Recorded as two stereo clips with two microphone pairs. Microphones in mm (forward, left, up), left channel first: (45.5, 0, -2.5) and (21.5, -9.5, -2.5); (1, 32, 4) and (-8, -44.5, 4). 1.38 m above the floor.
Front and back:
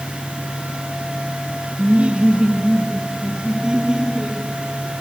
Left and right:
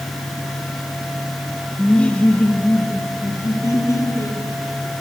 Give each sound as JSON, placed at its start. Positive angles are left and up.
{"t": 1.8, "sound": "laughter", "azimuth_deg": 165, "distance_m": 2.0}